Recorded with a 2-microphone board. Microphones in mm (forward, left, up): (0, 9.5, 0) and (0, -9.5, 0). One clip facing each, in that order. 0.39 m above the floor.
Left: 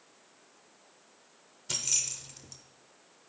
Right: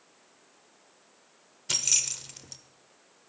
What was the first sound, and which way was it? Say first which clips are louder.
Keys jangling: right 5 dB; 30° right (ahead or behind).